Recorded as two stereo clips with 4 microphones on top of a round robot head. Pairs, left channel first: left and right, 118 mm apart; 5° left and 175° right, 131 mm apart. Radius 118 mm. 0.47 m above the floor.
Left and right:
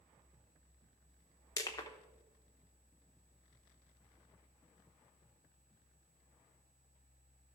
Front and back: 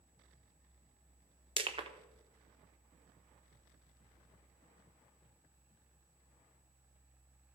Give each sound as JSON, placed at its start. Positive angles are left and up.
{"t": 1.6, "sound": "crushing", "azimuth_deg": 145, "distance_m": 1.0}